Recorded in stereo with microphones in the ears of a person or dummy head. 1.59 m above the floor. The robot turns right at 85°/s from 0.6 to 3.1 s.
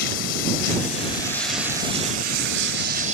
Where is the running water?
100° left; by 3.1 s 50° right.